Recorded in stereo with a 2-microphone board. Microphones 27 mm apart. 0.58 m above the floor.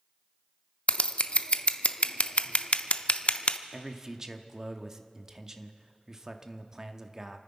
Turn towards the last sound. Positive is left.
turn(degrees=-20)  # may be behind; listen again after turning